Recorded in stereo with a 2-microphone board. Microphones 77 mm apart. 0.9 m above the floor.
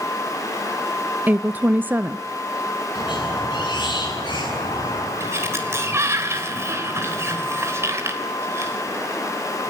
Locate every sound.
1.3 s a woman speaking: 25° right (ahead or behind), 0.6 m
3.0 s a squeak: 80° left, 9 m
5.2 s a sliding door: 35° right (ahead or behind), 3 m